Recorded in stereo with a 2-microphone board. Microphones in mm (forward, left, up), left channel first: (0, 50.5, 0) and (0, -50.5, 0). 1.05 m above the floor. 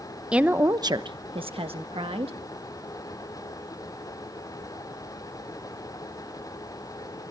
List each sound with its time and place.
0.3 s a woman speaking: 10° right (ahead or behind), 0.8 m; by 2.4 s 70° right (ahead or behind), 1.9 m